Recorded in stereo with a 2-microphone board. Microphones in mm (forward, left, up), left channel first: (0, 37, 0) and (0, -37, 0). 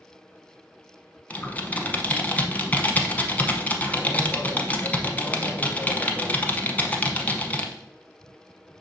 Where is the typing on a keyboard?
20° left (ahead or behind), 0.7 m.